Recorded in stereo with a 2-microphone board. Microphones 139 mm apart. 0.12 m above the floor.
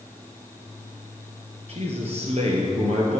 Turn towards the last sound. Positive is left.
turn(degrees=-50)  # may be behind; listen again after turning